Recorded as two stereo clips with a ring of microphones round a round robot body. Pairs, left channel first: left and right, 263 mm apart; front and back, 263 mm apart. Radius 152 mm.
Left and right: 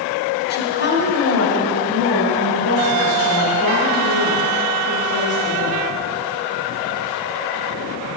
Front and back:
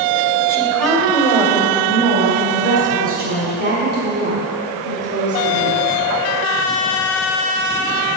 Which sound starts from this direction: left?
A woman speaking, at 0.5 s.